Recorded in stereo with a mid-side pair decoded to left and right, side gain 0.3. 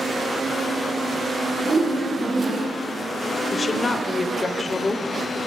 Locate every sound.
1.6 s a whoosh: 55° right, 1.0 m
3.5 s a woman speaking: 45° left, 0.5 m